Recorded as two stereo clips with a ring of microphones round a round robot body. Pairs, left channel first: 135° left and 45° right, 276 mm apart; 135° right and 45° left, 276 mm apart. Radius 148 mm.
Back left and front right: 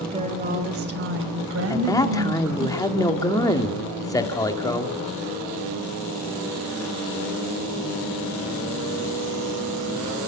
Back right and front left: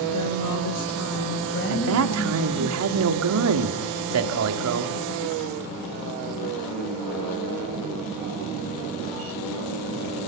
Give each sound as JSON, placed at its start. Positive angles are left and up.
{"t": 0.1, "sound": "a woman speaking", "azimuth_deg": -115, "distance_m": 2.5}
{"t": 1.7, "sound": "a man speaking", "azimuth_deg": 60, "distance_m": 2.0}